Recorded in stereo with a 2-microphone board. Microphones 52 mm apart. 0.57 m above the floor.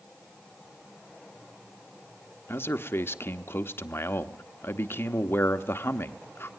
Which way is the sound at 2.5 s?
50° left (ahead or behind).